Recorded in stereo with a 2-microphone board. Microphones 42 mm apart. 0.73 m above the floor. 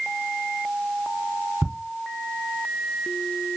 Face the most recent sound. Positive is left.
turn(degrees=-45)  # may be behind; listen again after turning